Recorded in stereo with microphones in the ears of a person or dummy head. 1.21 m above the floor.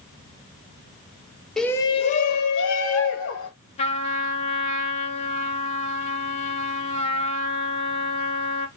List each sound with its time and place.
1.6 s a shout: centre (ahead or behind), 0.6 m; by 3.5 s 75° left (ahead or behind), 1.3 m
3.8 s a trumpet: 35° left (ahead or behind), 0.9 m